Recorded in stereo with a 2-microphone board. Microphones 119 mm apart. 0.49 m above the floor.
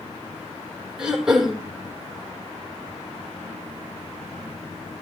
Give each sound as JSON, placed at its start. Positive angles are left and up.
{"t": 1.0, "sound": "throat clearing", "side_deg": -5, "distance_m": 3.0}